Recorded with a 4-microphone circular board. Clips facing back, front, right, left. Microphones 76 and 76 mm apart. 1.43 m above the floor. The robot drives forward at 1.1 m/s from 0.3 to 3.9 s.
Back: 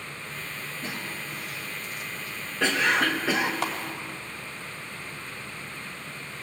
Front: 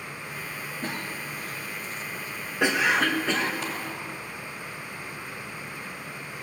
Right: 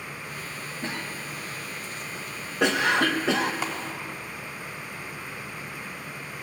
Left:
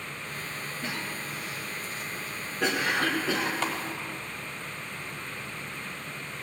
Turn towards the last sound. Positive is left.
turn(degrees=-170)